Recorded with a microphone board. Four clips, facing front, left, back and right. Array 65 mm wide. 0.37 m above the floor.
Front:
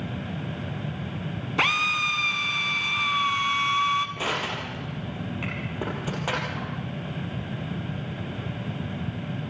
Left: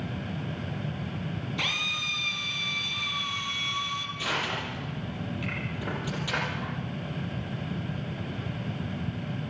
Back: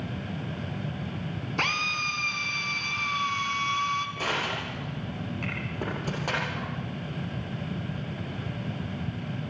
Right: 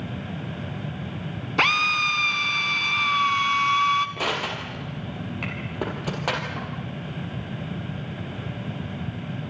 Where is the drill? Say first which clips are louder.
Right 13 dB, front 5 dB; 70° right, 1.6 m.